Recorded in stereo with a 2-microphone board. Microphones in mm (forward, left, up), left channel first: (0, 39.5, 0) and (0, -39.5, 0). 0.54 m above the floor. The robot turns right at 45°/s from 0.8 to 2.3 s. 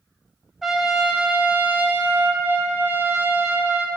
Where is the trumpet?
170° right, 1.4 m; by 3.9 s 105° right, 1.4 m.